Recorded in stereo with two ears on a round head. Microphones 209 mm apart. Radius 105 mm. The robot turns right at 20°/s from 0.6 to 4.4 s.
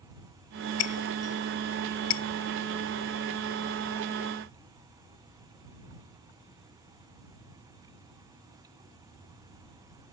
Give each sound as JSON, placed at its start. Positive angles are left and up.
{"t": 0.8, "sound": "breaking glass", "side_deg": 80}